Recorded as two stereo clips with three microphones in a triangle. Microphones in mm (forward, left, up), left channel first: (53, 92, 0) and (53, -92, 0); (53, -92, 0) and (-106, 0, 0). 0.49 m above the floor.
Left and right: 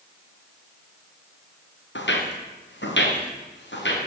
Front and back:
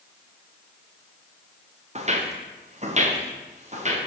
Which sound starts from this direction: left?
Footsteps, at 1.9 s.